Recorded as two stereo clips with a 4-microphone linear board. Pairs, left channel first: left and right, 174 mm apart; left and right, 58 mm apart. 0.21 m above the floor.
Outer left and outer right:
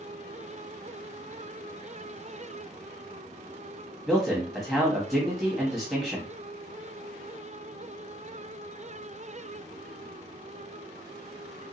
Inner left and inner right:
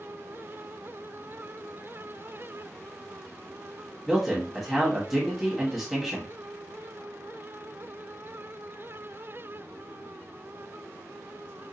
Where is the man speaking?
Centre (ahead or behind), 1.3 m.